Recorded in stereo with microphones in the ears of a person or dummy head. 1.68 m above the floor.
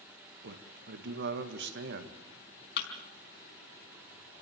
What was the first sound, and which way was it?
A man speaking, 65° right (ahead or behind).